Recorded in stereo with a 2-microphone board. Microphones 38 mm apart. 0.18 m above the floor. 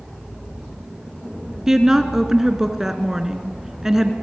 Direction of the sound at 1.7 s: 10° right (ahead or behind).